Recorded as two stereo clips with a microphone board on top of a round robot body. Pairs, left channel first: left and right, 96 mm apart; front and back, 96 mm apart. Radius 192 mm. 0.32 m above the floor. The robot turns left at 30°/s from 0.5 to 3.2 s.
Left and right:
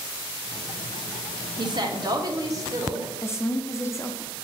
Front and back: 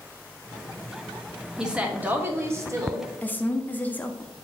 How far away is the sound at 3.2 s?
About 1.1 m.